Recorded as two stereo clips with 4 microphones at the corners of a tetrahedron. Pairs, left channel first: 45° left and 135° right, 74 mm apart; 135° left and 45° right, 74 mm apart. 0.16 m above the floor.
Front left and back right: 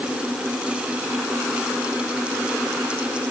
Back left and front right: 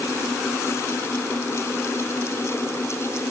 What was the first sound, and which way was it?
Only background noise.